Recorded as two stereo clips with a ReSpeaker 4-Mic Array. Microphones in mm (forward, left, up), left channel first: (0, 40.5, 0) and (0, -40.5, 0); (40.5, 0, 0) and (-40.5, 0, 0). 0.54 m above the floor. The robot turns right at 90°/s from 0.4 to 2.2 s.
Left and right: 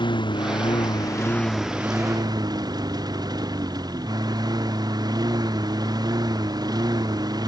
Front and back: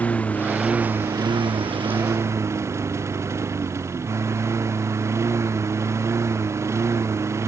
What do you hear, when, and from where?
0.0 s a lawn mower: 70° left; by 7.5 s 125° right